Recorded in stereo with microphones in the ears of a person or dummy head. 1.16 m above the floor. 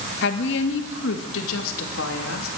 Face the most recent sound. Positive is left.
turn(degrees=75)  # may be behind; listen again after turning